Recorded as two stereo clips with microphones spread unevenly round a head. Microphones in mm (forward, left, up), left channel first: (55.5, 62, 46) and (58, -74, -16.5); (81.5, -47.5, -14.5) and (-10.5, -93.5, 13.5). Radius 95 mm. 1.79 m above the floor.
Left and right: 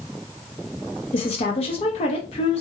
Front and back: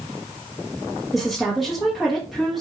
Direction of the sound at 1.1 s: 125° left.